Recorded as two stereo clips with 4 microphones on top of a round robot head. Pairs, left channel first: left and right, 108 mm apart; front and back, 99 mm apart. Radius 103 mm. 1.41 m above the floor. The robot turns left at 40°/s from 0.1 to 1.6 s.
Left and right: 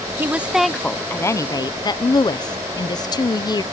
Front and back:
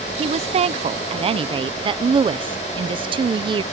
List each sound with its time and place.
0.2 s a woman speaking: 160° right; by 3.6 s 145° left